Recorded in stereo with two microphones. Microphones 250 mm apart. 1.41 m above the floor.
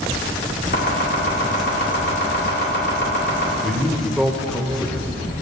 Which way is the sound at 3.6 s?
Centre (ahead or behind).